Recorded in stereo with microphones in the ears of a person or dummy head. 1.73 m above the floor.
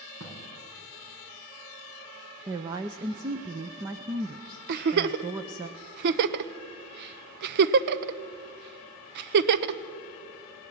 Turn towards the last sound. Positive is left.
turn(degrees=-55)  # may be behind; listen again after turning